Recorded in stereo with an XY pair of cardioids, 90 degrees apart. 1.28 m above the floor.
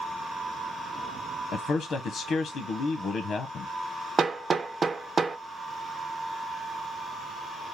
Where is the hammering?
35° right, 0.5 m.